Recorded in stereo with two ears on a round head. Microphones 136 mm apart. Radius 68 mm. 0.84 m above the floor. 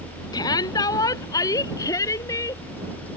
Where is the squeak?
No squeak in this recording.